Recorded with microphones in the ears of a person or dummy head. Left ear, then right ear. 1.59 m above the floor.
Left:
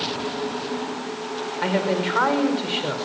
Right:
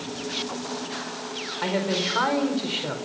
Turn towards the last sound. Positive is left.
turn(degrees=10)  # may be behind; listen again after turning